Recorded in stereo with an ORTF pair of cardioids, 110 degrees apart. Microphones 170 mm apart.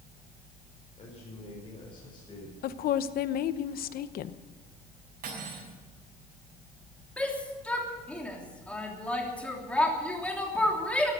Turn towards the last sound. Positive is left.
turn(degrees=5)